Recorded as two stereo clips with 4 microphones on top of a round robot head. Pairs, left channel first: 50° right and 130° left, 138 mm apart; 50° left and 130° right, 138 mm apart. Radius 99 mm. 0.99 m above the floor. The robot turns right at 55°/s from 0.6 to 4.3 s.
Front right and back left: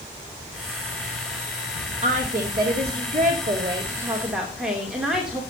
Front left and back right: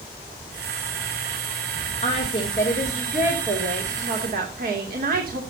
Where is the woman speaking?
90° left, 3 m; by 5.4 s 145° right, 3 m.